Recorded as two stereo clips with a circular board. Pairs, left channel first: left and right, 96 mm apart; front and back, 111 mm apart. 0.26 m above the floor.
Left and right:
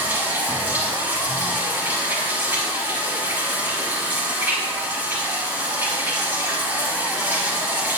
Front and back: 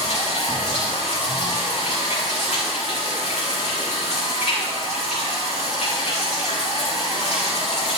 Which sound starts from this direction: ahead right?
Running water, at 0.0 s.